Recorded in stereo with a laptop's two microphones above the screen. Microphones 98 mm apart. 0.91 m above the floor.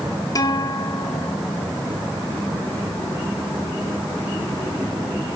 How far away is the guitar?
About 2 m.